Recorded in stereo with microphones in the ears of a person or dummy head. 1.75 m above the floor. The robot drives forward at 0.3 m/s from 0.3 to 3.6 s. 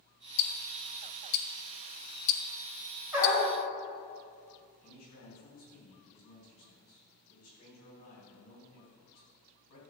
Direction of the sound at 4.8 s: 50° left (ahead or behind).